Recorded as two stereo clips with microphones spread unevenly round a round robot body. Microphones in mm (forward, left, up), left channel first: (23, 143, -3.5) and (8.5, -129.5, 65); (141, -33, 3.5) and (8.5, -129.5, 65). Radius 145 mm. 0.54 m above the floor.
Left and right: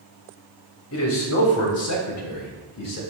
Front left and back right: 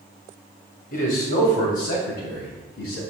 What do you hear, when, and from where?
0.9 s a man speaking: 60° left, 2.5 m; by 3.0 s 70° left, 3.5 m